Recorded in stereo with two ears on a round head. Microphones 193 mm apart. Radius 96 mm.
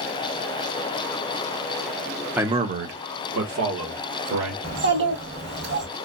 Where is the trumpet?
I don't hear a trumpet.